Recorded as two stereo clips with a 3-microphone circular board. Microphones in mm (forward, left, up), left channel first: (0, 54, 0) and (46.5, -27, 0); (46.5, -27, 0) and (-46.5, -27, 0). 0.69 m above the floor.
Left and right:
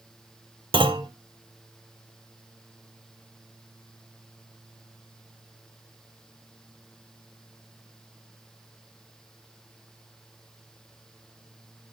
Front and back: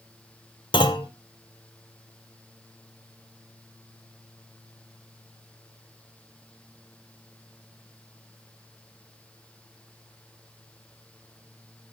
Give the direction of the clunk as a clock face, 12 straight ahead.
1 o'clock.